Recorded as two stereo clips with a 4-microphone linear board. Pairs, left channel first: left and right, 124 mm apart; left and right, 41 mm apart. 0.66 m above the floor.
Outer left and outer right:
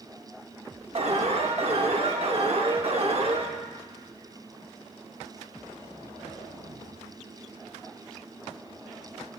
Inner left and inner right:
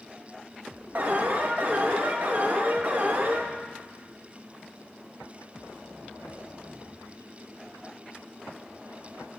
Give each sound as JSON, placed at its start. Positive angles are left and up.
{"t": 0.9, "sound": "an alarm", "side_deg": -55, "distance_m": 0.8}